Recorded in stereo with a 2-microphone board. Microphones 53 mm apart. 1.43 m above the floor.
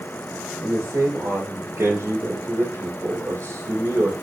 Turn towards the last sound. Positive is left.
turn(degrees=-80)